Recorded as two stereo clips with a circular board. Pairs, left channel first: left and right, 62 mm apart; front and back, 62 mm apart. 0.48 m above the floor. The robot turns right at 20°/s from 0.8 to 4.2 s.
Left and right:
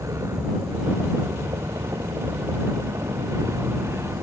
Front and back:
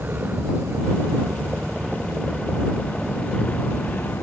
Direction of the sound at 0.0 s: 120° right.